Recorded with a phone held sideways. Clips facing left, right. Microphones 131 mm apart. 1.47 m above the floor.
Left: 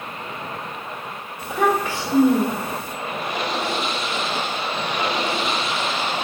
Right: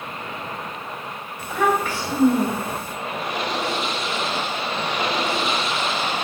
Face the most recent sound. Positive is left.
turn(degrees=20)  # may be behind; listen again after turning